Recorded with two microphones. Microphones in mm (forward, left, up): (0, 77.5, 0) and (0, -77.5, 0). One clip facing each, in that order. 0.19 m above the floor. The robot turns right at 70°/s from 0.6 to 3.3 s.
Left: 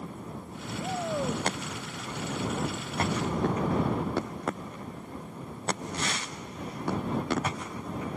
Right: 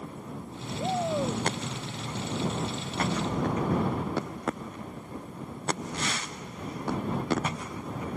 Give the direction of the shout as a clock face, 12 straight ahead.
1 o'clock.